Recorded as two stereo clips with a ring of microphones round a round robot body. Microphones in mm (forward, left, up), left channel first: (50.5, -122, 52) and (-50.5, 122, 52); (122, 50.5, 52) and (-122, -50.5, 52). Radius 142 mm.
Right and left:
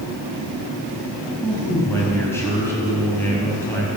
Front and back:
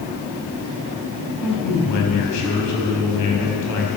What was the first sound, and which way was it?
A man speaking, 15° left.